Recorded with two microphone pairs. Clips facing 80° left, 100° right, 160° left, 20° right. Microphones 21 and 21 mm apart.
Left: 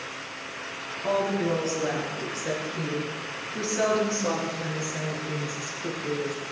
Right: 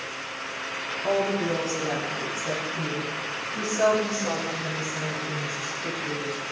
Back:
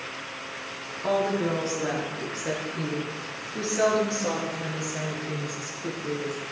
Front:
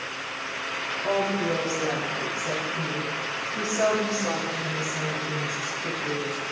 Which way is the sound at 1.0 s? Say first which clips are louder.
Even, back 1 dB; 145° left.